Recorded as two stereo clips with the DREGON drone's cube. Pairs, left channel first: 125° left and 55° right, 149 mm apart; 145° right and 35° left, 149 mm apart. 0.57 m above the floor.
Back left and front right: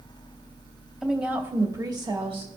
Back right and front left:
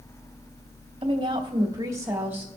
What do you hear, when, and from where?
1.0 s a woman speaking: 30° left, 1.4 m; by 2.5 s 40° right, 1.5 m